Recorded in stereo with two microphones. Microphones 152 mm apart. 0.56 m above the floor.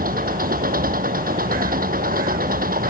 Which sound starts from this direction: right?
An engine running, at 0.0 s.